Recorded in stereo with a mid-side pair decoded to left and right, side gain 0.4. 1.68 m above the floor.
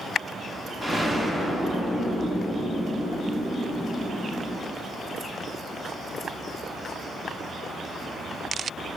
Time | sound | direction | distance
0.8 | an explosion | 10° right | 1.0 m